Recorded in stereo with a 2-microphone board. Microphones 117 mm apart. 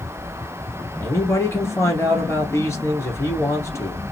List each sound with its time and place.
1.0 s a man speaking: 25° left (ahead or behind), 1.3 m